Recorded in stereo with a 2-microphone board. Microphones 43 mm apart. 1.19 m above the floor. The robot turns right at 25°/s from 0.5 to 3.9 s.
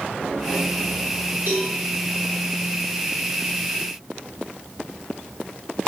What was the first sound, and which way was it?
A cowbell, 65° right (ahead or behind).